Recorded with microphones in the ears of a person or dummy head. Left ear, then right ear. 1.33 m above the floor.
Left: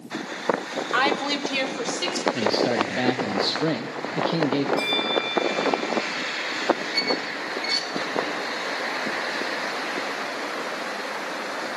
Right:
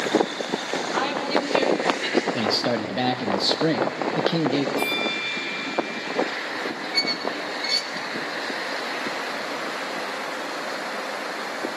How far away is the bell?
About 3 m.